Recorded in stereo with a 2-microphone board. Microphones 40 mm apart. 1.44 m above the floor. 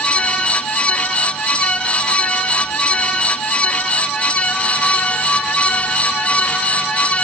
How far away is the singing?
No singing in this recording.